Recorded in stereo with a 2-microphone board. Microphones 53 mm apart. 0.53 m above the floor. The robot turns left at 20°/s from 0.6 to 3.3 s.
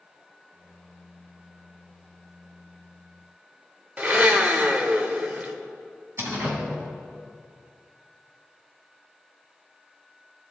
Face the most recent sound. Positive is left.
turn(degrees=-60)  # may be behind; listen again after turning